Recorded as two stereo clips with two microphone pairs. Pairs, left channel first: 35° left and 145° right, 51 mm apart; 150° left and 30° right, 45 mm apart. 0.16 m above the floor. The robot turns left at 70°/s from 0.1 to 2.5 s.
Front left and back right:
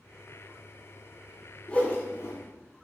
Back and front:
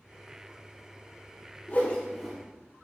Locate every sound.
1.7 s a whoosh: 100° left, 2.5 m; by 2.4 s 55° left, 2.5 m